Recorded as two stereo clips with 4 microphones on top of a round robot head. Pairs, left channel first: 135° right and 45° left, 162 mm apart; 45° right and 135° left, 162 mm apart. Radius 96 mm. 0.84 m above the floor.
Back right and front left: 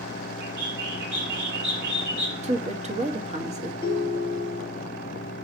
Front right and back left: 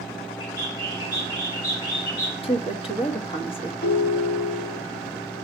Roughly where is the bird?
Ahead.